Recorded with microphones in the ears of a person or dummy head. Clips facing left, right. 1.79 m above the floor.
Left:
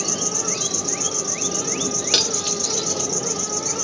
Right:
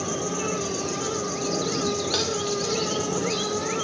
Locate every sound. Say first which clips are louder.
0.0 s an insect: right 1 dB; 55° left (ahead or behind), 1.1 m
2.1 s cutlery clinking: right 1 dB; 35° left (ahead or behind), 1.2 m